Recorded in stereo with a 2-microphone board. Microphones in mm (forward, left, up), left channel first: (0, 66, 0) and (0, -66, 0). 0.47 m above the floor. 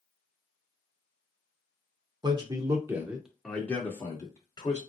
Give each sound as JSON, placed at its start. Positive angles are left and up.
{"t": 2.2, "sound": "a man speaking", "side_deg": -35, "distance_m": 0.8}